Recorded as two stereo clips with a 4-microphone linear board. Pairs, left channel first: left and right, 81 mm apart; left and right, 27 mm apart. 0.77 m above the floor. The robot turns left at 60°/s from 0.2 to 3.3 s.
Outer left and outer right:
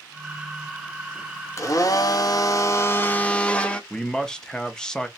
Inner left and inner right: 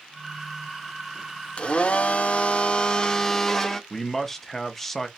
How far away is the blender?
About 0.7 m.